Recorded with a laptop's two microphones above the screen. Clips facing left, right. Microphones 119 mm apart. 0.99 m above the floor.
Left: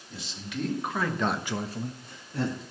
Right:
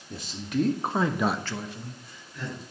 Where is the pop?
I don't hear a pop.